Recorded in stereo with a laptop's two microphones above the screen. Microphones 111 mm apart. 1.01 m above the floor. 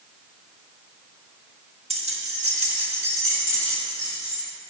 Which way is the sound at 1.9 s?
70° right (ahead or behind).